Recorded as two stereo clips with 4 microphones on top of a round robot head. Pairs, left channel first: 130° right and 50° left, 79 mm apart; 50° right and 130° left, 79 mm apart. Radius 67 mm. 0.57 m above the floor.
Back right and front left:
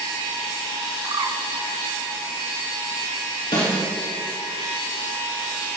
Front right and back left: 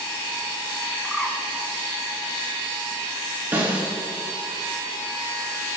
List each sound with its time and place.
1.0 s a bird: 40° left, 1.5 m
3.5 s a snare drum: 160° right, 3.5 m